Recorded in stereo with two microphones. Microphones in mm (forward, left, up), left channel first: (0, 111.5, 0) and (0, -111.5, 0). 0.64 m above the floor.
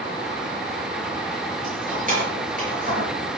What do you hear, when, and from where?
1.6 s keys jangling: 35° right (ahead or behind), 7 m